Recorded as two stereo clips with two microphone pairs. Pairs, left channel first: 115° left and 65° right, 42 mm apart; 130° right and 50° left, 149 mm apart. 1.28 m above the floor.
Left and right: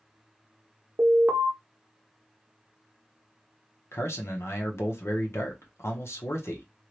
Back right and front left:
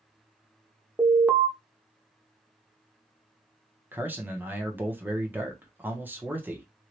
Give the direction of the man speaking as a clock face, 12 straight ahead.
8 o'clock.